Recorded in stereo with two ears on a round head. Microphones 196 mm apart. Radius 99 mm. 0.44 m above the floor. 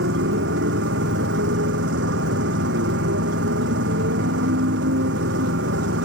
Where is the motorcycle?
65° right (ahead or behind).